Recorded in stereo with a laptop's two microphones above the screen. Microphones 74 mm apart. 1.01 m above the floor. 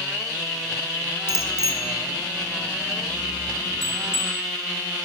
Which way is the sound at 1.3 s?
40° left (ahead or behind).